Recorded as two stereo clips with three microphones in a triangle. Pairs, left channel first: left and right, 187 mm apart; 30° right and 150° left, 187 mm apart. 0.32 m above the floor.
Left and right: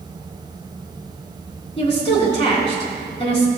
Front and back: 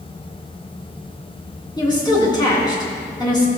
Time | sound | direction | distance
1.8 | a woman speaking | 35° left | 3.5 m